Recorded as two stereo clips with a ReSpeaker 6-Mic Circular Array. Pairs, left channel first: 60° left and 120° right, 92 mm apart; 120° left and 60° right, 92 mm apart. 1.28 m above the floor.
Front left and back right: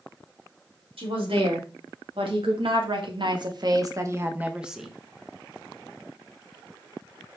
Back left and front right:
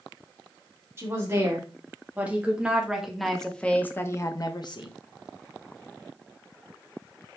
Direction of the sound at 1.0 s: 125° right.